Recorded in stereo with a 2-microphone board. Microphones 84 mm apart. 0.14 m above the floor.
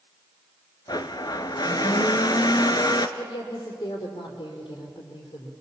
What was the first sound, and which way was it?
A blender, 55° left (ahead or behind).